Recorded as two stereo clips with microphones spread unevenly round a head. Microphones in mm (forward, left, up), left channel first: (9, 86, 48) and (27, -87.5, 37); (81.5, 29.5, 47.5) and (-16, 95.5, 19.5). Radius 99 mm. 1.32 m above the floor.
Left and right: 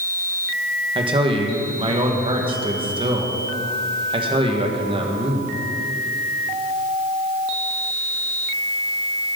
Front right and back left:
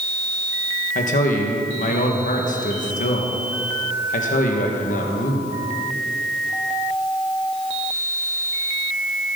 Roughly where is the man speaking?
Ahead right.